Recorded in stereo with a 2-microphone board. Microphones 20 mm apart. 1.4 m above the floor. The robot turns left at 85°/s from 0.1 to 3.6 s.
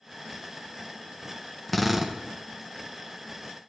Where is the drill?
10° left, 0.7 m; by 2.2 s 35° right, 0.7 m.